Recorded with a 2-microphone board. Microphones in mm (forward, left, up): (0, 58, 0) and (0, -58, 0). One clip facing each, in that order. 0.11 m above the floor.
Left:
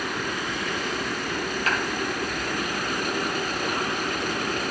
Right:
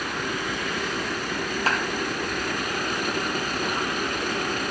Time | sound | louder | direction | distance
1.7 | a clap | right 2 dB | 35° right (ahead or behind) | 2 m